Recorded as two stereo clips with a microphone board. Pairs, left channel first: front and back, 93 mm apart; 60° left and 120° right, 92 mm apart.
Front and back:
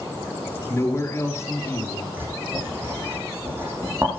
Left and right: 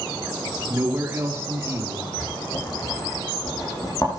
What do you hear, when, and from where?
0.7 s a man speaking: 60° right, 2.5 m
2.2 s writing: 115° left, 6 m